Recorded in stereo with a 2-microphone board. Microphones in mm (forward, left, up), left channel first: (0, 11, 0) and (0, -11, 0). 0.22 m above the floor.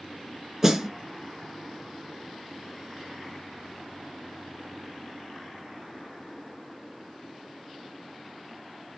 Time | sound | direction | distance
0.6 | a snare drum | 20° right (ahead or behind) | 0.7 m